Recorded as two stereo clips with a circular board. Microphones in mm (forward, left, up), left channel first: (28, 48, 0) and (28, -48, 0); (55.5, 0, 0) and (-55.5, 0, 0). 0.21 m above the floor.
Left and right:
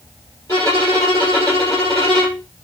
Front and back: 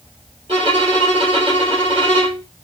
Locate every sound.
0.5 s a violin: 140° left, 2.5 m